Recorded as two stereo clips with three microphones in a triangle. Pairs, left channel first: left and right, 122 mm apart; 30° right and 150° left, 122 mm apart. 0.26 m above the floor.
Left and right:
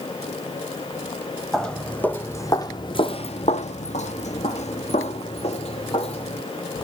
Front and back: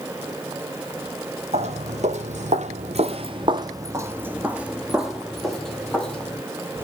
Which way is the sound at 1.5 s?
175° left.